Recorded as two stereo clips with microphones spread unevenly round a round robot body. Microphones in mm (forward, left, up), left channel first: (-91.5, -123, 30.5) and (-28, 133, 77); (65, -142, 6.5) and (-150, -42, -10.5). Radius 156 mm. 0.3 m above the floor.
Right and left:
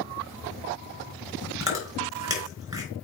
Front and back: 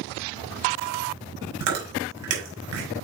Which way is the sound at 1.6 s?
155° left.